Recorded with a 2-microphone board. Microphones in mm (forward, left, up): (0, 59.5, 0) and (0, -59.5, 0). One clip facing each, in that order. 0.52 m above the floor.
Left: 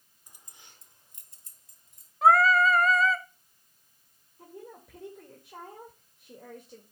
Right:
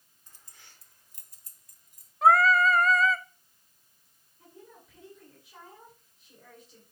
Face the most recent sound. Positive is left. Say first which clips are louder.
# left 6 dB
turn(degrees=55)  # may be behind; listen again after turning